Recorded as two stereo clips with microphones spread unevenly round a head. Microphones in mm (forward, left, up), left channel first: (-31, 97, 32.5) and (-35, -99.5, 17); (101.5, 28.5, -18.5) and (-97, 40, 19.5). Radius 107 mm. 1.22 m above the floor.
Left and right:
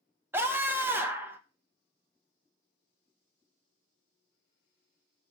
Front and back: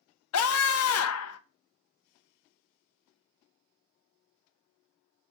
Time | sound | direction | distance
0.3 | a scream | 10° right | 0.9 m